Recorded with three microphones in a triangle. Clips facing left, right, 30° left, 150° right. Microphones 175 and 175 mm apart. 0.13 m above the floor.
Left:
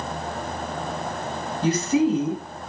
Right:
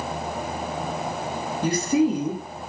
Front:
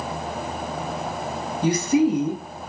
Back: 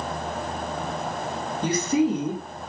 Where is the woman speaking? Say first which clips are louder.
Even, front 3 dB; 30° right, 1.3 m.